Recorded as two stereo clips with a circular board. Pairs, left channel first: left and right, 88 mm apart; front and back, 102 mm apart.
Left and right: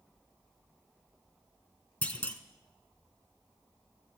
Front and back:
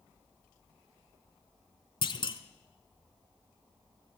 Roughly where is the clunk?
Ahead.